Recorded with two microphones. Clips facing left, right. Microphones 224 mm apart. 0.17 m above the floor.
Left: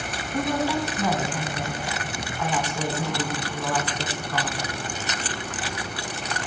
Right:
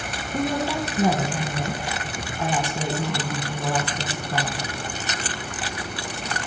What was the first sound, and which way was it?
A woman speaking, 30° right (ahead or behind).